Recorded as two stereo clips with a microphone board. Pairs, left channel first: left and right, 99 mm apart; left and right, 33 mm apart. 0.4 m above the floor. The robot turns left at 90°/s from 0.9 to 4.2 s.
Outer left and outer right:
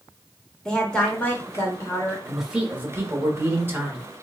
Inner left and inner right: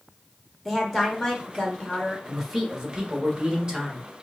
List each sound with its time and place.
0.7 s a woman speaking: 5° left (ahead or behind), 1.0 m; by 2.2 s 20° left (ahead or behind), 1.0 m
2.3 s a man speaking: 5° left, 0.9 m; by 4.2 s 170° right, 0.9 m